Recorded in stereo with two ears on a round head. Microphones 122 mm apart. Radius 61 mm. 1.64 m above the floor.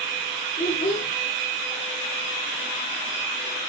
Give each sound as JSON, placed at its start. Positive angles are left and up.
{"t": 0.6, "sound": "a child speaking", "side_deg": 70, "distance_m": 3.0}